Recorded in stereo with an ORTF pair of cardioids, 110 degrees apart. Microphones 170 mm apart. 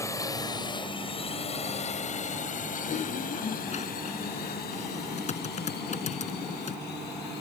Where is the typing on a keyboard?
45° left.